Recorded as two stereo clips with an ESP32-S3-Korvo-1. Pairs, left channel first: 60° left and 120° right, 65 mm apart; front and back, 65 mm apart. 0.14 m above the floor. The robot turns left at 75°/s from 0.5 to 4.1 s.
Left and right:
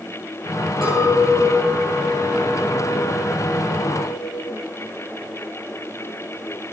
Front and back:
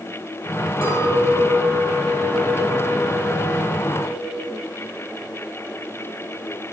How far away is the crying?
I don't hear crying.